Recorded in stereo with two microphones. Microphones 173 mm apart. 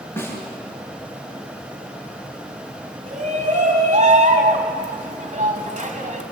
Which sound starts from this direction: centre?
A snare drum, at 0.2 s.